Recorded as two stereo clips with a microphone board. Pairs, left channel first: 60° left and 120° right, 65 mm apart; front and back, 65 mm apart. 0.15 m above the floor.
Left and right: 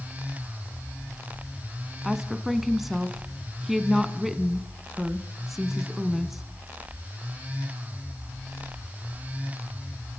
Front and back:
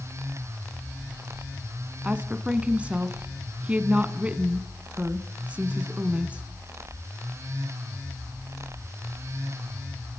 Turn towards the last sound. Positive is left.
turn(degrees=160)